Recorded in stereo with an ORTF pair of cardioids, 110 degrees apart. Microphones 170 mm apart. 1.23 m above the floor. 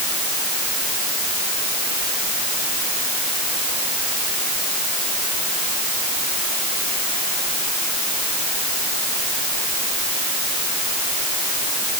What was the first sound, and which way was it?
Only background noise.